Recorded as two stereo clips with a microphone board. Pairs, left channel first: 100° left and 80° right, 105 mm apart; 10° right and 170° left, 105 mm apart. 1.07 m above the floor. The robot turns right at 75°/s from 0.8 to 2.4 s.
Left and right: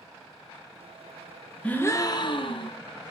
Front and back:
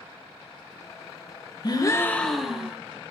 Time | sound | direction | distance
1.6 | a gasp | 25° left | 0.7 m